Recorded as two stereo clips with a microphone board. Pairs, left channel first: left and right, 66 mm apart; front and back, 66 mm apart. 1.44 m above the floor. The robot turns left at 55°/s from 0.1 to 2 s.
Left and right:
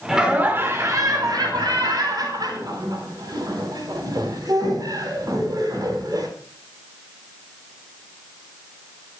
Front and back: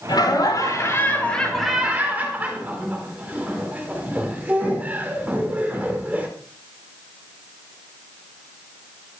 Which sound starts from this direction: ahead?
Laughter, at 0.1 s.